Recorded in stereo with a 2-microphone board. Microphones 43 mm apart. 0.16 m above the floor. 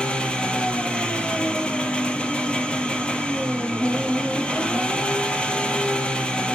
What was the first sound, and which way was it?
An engine running, 25° left (ahead or behind).